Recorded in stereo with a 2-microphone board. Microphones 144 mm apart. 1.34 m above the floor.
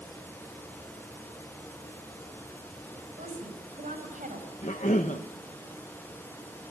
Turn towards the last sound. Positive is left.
turn(degrees=55)  # may be behind; listen again after turning